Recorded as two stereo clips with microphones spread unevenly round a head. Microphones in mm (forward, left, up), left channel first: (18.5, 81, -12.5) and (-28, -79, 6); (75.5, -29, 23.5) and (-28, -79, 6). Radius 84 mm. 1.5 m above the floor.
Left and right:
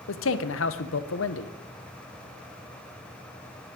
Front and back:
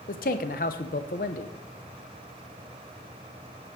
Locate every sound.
0.1 s a man speaking: 55° left, 0.8 m